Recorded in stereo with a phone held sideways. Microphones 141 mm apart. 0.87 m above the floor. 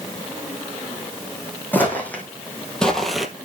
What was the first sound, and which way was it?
Footsteps, 15° left (ahead or behind).